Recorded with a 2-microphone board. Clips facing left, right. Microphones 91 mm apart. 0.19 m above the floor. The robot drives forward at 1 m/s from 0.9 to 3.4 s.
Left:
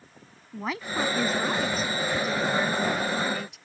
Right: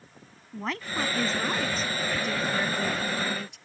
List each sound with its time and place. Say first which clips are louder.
0.5 s a woman speaking: left 2 dB; 5° left (ahead or behind)